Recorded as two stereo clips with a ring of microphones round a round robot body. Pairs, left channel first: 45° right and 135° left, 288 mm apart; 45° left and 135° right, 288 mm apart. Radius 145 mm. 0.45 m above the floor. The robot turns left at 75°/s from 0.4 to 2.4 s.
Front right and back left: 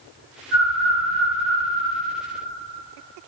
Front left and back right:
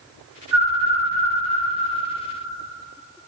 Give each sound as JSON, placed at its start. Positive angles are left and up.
{"t": 0.5, "sound": "a bird", "azimuth_deg": 180, "distance_m": 2.5}